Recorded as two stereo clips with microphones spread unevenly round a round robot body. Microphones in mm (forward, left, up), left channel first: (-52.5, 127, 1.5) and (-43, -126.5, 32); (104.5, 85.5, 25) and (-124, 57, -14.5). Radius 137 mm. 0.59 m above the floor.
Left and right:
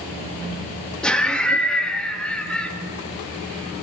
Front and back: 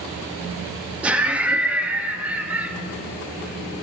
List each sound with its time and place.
1.0 s laughter: 150° left, 0.6 m